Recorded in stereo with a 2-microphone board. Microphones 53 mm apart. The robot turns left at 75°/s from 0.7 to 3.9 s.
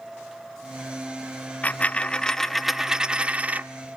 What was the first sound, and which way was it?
A dropped coin, 25° left (ahead or behind).